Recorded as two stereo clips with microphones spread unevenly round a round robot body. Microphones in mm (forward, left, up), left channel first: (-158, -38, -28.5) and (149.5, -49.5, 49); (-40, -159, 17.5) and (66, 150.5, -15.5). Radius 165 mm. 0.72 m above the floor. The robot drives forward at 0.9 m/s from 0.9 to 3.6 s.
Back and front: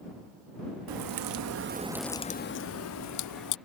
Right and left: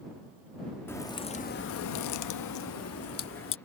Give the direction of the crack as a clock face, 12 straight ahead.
1 o'clock.